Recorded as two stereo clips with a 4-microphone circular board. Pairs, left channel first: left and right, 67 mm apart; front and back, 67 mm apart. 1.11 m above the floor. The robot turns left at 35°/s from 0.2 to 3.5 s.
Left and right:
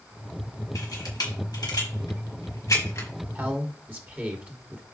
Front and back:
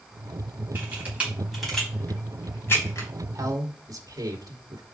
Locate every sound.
0.8 s a camera shutter: 120° left, 5 m; by 3.1 s 40° left, 5 m
3.4 s a man speaking: 150° right, 2 m; by 4.8 s 155° right, 2 m